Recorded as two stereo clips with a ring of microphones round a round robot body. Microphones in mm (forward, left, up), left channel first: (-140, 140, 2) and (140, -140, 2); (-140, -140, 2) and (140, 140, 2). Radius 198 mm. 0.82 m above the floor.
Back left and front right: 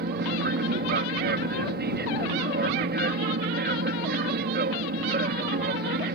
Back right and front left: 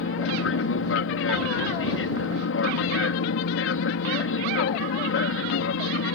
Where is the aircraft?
95° right.